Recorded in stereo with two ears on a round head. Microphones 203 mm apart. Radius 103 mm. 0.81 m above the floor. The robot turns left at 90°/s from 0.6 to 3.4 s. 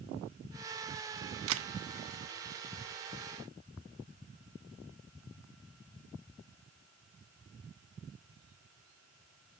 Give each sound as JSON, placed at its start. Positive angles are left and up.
{"t": 1.5, "sound": "a camera shutter", "side_deg": -60, "distance_m": 0.7}